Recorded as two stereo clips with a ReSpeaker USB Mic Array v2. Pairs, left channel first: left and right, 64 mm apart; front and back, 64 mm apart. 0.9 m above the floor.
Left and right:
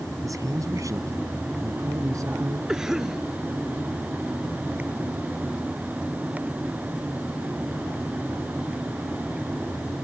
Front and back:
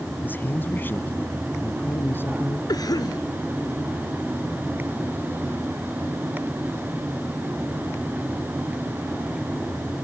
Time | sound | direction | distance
0.2 | a man speaking | 60° right | ?
2.7 | a cough | 10° right | ?